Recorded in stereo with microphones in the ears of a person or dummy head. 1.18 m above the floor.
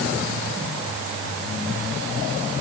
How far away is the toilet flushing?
I don't hear a toilet flushing.